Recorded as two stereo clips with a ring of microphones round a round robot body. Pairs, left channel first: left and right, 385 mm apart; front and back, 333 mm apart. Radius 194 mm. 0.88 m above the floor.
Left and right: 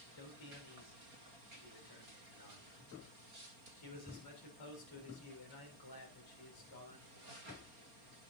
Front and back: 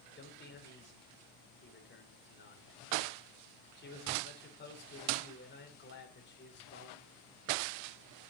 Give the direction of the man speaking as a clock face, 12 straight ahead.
10 o'clock.